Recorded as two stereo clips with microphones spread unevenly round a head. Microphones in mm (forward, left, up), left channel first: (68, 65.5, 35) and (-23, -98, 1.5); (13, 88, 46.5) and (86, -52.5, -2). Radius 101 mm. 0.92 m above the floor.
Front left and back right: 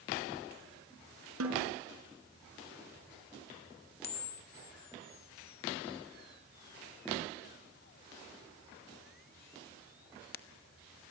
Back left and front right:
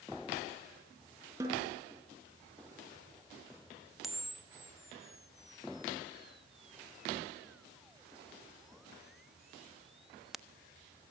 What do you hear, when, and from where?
1.4 s a snare drum: 140° right, 5 m
4.0 s a camera shutter: 20° left, 1.1 m